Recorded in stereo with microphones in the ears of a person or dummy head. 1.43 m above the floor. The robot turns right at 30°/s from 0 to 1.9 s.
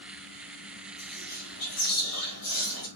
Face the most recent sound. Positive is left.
turn(degrees=70)  # may be behind; listen again after turning